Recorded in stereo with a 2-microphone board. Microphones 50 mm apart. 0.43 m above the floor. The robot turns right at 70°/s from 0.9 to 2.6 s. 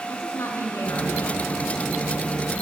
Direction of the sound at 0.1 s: 110° left.